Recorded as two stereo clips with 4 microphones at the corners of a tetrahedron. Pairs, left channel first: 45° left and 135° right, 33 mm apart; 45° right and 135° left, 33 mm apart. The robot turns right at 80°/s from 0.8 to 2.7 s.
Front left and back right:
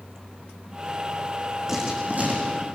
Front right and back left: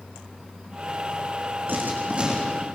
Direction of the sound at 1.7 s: 150° left.